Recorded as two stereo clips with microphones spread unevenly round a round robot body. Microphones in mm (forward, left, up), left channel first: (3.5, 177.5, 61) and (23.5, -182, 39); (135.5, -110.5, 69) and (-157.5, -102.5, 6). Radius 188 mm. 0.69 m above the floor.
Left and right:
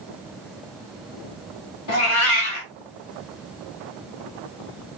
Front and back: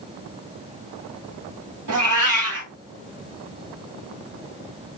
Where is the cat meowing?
130° left, 0.7 m.